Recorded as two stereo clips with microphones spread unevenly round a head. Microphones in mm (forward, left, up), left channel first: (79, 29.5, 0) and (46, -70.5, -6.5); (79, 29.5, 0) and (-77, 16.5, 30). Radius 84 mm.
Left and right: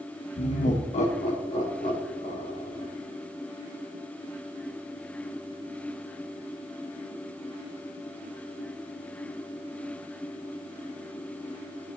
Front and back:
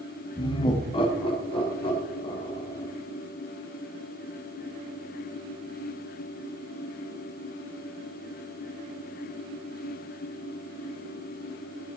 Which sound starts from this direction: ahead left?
Laughter, at 0.4 s.